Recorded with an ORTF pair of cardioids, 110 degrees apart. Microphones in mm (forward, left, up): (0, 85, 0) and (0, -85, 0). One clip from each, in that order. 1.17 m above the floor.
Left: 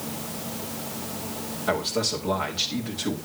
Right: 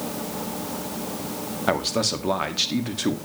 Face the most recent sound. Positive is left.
turn(degrees=-35)